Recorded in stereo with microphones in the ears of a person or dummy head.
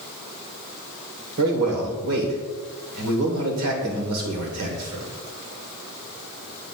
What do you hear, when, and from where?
1.4 s a man speaking: 85° right, 2 m